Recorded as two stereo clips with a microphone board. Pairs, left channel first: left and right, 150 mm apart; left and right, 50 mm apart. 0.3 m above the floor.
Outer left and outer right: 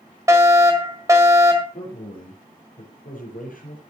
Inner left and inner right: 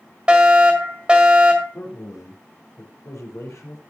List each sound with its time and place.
0.3 s a fire alarm: 20° right (ahead or behind), 1.8 m
1.7 s a man speaking: 70° left (ahead or behind), 5 m